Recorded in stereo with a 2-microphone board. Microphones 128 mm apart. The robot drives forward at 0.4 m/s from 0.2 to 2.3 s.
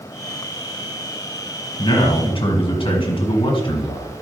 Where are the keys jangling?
No keys jangling in this recording.